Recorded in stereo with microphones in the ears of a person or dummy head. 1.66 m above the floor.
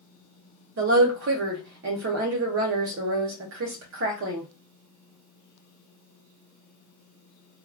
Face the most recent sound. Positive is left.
turn(degrees=-45)  # may be behind; listen again after turning